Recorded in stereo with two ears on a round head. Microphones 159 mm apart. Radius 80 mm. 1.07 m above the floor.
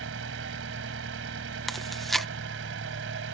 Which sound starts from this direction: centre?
Chewing, at 1.7 s.